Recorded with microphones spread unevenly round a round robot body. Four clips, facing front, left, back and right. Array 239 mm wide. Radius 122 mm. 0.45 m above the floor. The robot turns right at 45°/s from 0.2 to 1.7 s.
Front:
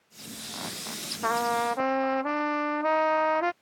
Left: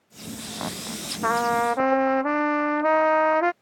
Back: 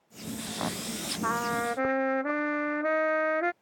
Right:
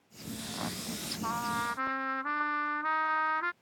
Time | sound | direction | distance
1.2 | a trumpet | 70° left | ?